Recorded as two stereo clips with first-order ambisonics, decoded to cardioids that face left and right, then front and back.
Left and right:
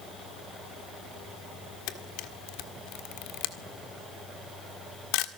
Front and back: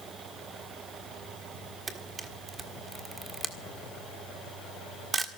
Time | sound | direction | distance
1.9 | a camera shutter | 105° left | 1.6 m